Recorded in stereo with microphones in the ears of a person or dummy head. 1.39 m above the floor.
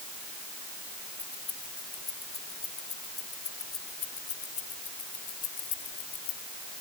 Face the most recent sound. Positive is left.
turn(degrees=45)  # may be behind; listen again after turning